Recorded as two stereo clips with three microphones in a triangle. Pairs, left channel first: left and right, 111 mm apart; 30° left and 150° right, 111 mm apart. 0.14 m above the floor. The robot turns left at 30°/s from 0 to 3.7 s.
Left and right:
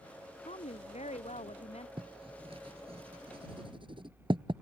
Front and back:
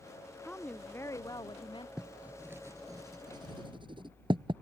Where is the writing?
65° right; by 4.5 s 120° right.